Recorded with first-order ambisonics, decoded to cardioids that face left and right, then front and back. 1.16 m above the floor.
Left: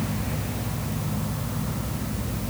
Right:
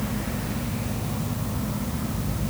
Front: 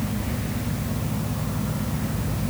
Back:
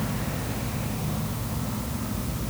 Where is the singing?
I don't hear singing.